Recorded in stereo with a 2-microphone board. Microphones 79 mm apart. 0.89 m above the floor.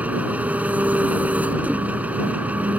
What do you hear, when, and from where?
0.0 s an engine running: 20° right (ahead or behind)